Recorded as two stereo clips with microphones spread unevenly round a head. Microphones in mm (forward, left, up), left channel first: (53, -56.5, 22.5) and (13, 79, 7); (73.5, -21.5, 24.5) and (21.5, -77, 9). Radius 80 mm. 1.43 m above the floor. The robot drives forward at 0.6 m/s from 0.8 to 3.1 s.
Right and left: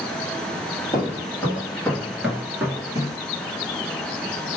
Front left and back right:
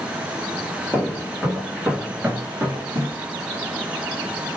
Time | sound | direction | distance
0.9 | footsteps | 20° right | 2 m